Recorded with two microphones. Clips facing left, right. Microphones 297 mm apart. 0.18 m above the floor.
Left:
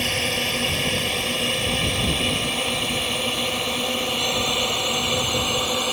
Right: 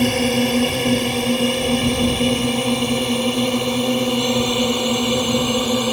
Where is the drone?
60° right (ahead or behind); by 5.9 s 50° right (ahead or behind).